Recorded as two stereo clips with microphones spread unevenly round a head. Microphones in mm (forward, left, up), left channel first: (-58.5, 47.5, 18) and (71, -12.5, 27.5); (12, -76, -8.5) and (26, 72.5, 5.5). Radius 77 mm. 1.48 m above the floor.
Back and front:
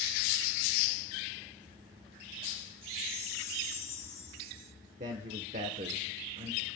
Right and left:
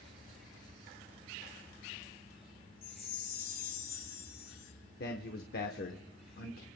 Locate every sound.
2.8 s a chime: 130° right, 2.5 m
5.0 s a man speaking: 70° right, 1.0 m